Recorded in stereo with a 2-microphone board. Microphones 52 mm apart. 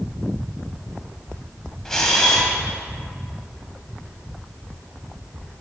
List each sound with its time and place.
1.9 s a camera shutter: 10° left (ahead or behind), 2 m